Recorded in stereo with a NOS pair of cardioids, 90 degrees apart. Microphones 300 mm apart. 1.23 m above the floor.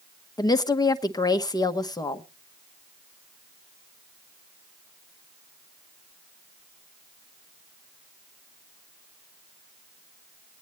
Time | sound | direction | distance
0.4 | a woman speaking | 15° left | 1.2 m